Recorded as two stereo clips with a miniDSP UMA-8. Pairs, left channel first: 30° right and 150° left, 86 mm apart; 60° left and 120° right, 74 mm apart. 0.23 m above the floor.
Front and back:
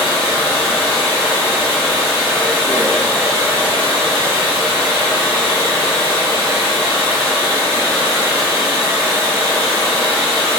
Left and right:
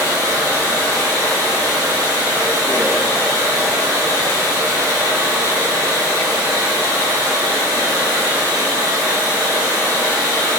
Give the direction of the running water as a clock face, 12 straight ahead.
4 o'clock.